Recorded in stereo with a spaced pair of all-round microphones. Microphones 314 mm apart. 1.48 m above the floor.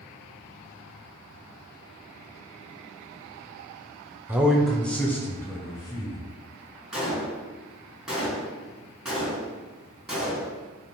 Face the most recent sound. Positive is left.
turn(degrees=0)  # may be behind; listen again after turning